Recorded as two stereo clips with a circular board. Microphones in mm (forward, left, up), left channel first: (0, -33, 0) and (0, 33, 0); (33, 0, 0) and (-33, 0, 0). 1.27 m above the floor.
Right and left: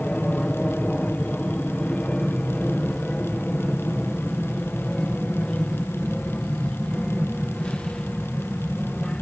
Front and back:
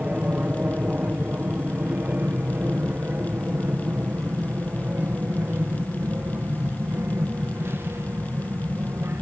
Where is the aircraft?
145° right; by 9.2 s 160° right.